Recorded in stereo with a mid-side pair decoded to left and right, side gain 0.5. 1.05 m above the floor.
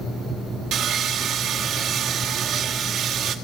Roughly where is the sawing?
Ahead right.